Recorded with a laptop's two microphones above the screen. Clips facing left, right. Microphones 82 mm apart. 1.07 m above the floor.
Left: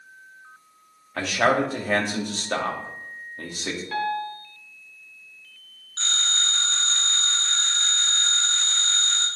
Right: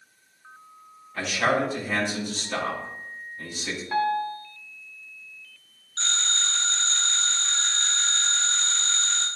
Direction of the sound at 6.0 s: 10° left (ahead or behind).